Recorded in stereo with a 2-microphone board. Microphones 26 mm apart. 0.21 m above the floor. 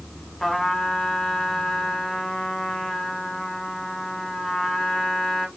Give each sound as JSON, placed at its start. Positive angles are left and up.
{"t": 0.4, "sound": "a trumpet", "side_deg": 10, "distance_m": 1.5}